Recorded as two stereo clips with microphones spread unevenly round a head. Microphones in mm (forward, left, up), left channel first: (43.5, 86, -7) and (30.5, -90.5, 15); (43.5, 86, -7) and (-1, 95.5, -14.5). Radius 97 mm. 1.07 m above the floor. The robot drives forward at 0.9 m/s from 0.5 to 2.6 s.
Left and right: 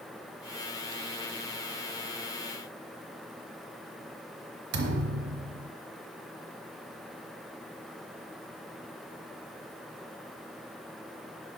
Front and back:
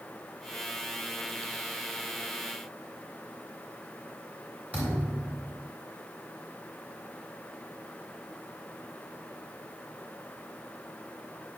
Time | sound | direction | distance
4.7 | a thud | 115° right | 1.0 m